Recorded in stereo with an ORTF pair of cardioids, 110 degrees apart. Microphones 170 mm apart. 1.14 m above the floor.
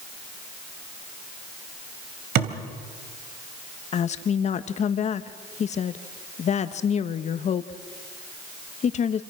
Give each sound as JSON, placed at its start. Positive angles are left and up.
{"t": 2.4, "sound": "a thud", "azimuth_deg": -70, "distance_m": 3.0}
{"t": 3.9, "sound": "a woman speaking", "azimuth_deg": 45, "distance_m": 1.3}